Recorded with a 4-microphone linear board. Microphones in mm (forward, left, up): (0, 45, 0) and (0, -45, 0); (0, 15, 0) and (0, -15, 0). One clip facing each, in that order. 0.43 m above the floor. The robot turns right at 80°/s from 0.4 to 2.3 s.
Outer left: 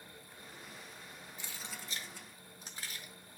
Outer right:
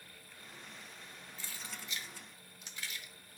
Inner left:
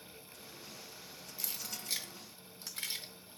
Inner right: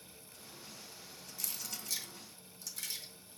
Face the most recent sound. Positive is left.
turn(degrees=40)  # may be behind; listen again after turning